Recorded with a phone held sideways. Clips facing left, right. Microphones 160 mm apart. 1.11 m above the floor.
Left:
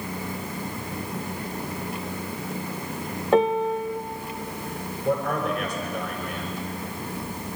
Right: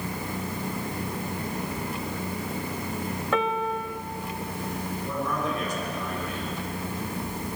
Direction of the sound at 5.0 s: 65° left (ahead or behind).